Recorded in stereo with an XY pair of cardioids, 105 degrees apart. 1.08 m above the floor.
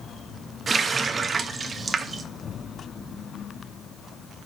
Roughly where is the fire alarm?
I don't hear a fire alarm.